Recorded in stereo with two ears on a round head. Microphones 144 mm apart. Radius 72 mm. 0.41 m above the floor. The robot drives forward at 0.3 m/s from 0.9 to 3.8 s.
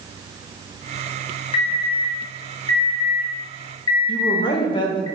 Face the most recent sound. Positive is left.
turn(degrees=35)  # may be behind; listen again after turning